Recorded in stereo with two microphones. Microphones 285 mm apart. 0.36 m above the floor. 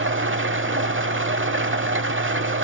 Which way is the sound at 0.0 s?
45° right (ahead or behind).